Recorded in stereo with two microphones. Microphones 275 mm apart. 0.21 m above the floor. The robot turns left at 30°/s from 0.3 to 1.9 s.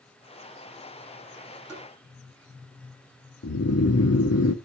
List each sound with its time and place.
1.7 s tapping: 10° left (ahead or behind), 7.5 m; by 1.9 s 5° left (ahead or behind), 7.5 m
3.4 s snoring: 60° left (ahead or behind), 0.7 m